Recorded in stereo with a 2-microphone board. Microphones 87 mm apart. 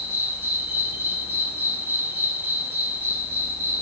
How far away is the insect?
About 2 m.